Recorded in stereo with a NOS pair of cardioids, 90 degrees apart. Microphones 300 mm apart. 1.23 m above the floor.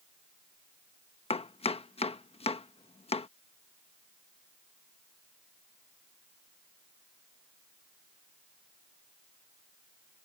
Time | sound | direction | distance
1.3 | chopping | 20° left | ?